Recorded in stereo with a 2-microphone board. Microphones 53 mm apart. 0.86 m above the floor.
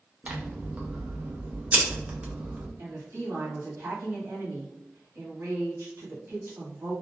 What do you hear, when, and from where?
0.2 s scissors: 25° right (ahead or behind), 0.7 m
2.8 s a woman speaking: 50° right (ahead or behind), 1.2 m